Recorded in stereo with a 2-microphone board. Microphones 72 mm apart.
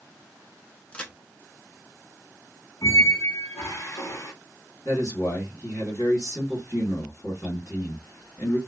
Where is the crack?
15° left (ahead or behind), 0.7 m.